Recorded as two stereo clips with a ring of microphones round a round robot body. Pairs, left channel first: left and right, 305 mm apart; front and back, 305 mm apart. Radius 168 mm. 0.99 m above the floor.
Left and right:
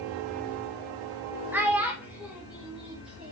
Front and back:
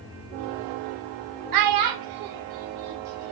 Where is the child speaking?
175° right, 0.5 m.